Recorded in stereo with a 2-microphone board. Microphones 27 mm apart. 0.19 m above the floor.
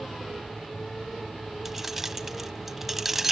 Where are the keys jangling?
10° right (ahead or behind), 0.8 m.